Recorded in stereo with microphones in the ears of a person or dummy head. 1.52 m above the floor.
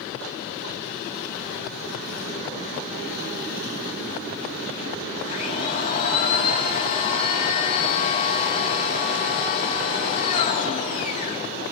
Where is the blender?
45° left (ahead or behind), 1.7 m.